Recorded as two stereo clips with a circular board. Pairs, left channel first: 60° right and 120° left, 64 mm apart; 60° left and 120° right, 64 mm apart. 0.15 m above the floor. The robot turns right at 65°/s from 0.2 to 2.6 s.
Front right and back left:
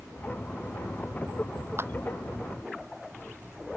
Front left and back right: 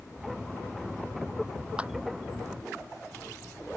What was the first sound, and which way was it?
A clap, 170° left.